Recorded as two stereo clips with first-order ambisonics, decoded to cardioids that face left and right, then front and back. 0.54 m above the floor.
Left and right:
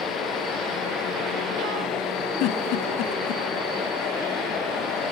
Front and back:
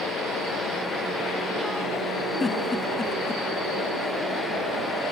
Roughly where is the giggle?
Left.